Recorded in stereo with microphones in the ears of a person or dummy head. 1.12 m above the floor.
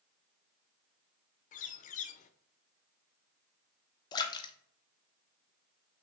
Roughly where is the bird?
Left.